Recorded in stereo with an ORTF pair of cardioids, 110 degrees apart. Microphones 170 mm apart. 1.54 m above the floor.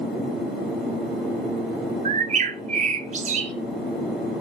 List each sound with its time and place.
2.0 s a bird: 45° right, 1.1 m